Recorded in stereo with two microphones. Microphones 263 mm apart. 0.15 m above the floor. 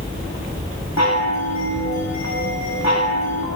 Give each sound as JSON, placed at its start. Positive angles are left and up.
{"t": 1.0, "sound": "a chime", "side_deg": 85, "distance_m": 5.5}